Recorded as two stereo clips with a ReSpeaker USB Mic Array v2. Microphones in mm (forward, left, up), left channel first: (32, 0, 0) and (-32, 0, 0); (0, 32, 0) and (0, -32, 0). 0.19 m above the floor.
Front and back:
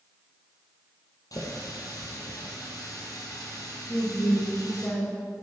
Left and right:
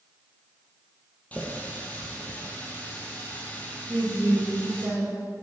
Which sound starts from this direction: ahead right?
A woman speaking, at 3.9 s.